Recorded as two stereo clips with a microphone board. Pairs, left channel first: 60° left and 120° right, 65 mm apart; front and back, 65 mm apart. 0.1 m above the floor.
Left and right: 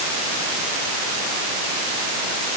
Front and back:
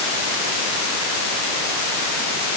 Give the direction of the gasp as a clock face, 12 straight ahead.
I don't hear a gasp.